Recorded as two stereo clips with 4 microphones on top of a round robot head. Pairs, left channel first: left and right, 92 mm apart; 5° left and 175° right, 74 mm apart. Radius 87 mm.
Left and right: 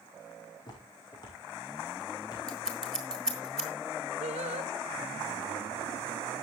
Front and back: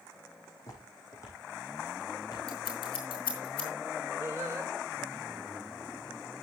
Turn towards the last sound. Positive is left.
turn(degrees=-110)